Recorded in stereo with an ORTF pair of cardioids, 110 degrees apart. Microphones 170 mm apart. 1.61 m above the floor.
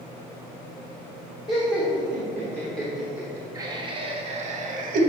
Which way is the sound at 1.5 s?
25° left.